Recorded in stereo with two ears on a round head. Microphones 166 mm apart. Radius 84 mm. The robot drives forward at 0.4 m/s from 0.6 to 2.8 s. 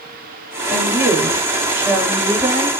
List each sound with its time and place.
0.7 s a woman speaking: 15° right (ahead or behind), 4 m; by 2.7 s 10° right (ahead or behind), 4.5 m